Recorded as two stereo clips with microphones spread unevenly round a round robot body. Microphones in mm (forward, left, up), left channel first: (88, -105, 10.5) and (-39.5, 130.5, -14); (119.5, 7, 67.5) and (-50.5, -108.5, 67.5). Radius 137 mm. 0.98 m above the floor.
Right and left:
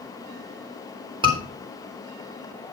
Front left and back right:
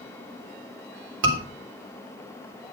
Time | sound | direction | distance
1.2 | a scream | 170° right | 3.5 m